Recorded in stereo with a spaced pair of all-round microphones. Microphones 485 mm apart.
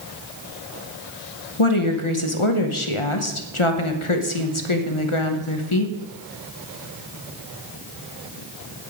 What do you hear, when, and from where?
1.6 s a woman speaking: 80° left, 1.0 m